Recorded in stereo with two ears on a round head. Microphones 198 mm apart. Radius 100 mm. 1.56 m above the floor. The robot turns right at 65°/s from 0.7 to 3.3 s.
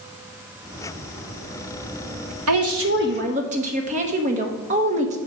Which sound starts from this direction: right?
A woman speaking, at 2.5 s.